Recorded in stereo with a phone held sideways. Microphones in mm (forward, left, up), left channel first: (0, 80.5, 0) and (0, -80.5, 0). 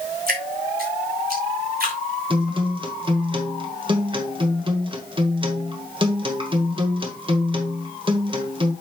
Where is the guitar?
35° right (ahead or behind), 1.4 m.